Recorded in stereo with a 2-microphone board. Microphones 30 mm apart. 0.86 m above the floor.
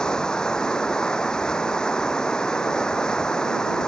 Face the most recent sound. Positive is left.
turn(degrees=20)  # may be behind; listen again after turning